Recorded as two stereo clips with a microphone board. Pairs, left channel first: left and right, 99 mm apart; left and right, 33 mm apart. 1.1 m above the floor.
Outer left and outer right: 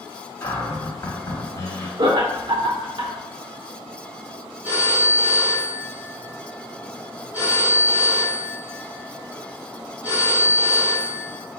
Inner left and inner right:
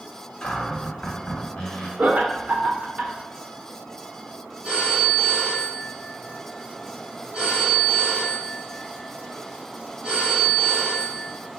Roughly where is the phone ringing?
Right.